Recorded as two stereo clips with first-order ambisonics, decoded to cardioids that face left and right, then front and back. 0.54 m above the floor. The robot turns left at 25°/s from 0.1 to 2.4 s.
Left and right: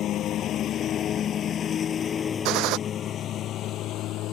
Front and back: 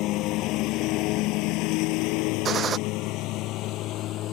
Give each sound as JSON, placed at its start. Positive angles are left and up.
{"t": 0.0, "sound": "a lawn mower", "azimuth_deg": 35}
{"t": 2.5, "sound": "a gunshot", "azimuth_deg": -120}